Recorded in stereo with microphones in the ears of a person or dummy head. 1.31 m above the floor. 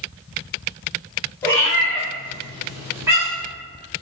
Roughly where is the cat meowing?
Centre.